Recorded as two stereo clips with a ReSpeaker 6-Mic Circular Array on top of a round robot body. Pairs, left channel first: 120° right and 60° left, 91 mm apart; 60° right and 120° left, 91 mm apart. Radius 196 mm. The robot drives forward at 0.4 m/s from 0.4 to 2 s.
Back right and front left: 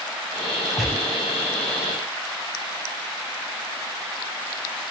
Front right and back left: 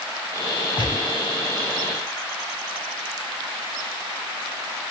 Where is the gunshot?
25° right, 3.5 m.